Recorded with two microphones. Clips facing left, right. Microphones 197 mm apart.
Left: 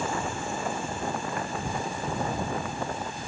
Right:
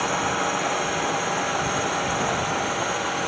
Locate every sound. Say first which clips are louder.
0.0 s a drone: right 5 dB; 80° right; by 3.3 s 85° right